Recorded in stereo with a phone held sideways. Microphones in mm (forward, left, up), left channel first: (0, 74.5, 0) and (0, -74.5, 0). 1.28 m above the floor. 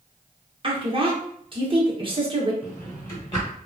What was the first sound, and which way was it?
A woman speaking, 35° right (ahead or behind).